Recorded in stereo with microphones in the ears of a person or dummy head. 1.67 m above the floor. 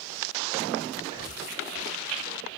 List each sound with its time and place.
1.0 s breathing: 20° right (ahead or behind), 1.1 m